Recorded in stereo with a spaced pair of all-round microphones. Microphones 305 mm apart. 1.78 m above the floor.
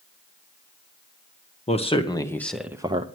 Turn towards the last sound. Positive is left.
turn(degrees=-25)  # may be behind; listen again after turning